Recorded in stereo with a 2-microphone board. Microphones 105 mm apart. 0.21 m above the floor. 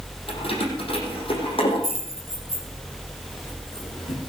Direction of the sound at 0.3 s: 65° left (ahead or behind).